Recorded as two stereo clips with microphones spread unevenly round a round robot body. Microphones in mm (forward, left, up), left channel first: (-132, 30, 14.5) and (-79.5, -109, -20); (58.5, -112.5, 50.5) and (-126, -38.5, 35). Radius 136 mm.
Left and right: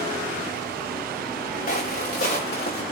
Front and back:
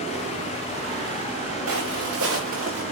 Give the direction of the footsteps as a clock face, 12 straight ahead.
8 o'clock.